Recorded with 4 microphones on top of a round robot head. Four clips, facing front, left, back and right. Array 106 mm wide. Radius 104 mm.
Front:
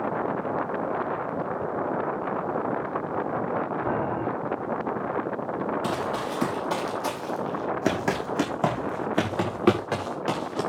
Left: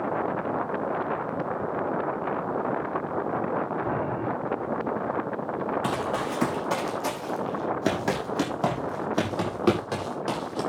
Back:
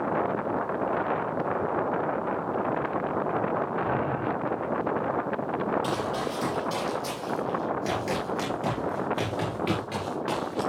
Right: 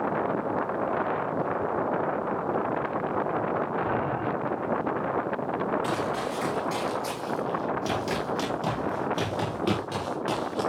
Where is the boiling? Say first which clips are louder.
Even, front 1 dB; 5° left, 7.5 m.